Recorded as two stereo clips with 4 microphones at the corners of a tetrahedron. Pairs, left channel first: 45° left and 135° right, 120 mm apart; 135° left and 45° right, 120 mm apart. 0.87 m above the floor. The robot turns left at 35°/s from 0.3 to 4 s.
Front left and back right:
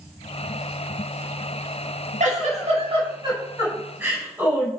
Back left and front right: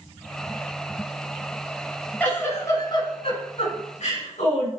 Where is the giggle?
150° right, 6.5 m; by 4.7 s 150° left, 6.5 m.